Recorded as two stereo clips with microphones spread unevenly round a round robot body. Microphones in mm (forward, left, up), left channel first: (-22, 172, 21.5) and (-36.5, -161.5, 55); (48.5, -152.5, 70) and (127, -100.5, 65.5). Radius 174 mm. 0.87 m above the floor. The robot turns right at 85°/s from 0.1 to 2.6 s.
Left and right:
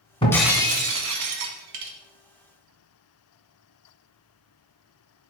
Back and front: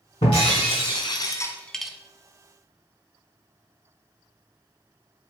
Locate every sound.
0.2 s breaking glass: 165° left, 1.3 m; by 1.9 s 50° right, 1.3 m